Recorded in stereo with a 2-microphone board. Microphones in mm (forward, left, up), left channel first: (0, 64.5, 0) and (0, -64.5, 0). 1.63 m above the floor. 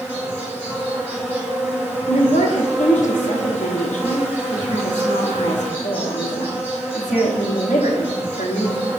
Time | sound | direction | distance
0.0 | an insect | 15° right (ahead or behind) | 1.5 m
2.1 | a woman speaking | 75° left (ahead or behind) | 0.7 m